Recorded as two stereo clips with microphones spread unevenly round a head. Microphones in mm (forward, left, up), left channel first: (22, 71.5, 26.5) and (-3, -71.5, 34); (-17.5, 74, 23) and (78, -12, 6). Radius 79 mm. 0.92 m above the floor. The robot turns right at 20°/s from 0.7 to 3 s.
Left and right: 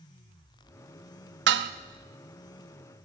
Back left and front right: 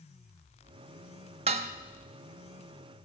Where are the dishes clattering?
100° right, 0.6 m; by 1.7 s 95° right, 0.6 m.